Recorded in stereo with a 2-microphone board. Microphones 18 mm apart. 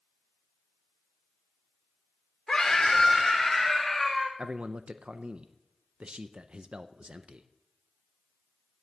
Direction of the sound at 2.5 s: 35° left (ahead or behind).